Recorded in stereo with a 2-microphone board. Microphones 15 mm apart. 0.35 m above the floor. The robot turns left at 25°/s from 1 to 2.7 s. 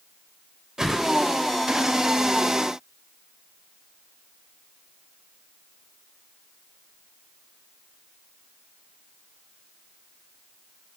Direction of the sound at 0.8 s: 35° right (ahead or behind).